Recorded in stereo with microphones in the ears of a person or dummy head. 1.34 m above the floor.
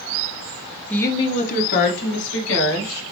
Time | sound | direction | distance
0.9 | a woman speaking | 10° left (ahead or behind) | 0.6 m